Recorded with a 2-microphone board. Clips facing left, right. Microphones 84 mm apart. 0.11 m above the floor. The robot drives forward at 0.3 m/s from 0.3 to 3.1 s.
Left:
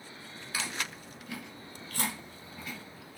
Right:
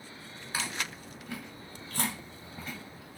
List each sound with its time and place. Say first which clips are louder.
0.5 s chewing: right 1 dB; 30° right (ahead or behind), 1.6 m